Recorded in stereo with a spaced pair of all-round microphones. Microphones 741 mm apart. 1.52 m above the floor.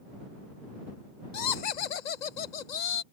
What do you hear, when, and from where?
1.3 s laughter: 75° left (ahead or behind)